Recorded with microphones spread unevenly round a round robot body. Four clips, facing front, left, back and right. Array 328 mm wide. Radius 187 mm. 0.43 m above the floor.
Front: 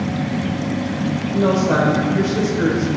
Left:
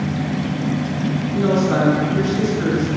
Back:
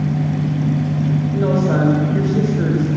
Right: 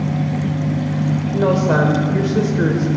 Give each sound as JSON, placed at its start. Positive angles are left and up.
{"t": 1.3, "sound": "a woman speaking", "azimuth_deg": -95, "distance_m": 1.7}